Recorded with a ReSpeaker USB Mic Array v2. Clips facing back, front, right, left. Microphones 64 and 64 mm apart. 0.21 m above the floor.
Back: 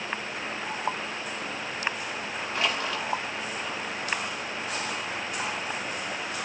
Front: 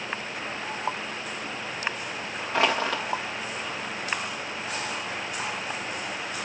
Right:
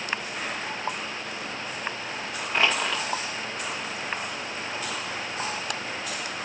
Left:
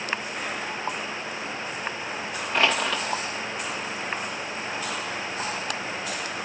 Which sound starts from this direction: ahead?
Crushing, at 2.5 s.